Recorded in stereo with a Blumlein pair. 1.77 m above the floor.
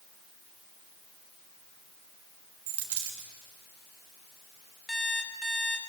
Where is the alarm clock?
5° left, 3.5 m.